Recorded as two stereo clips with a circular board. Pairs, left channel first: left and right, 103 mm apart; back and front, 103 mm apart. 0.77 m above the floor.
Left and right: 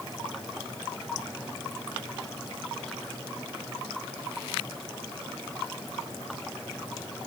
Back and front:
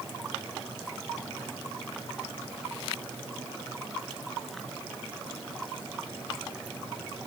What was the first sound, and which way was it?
Only background noise.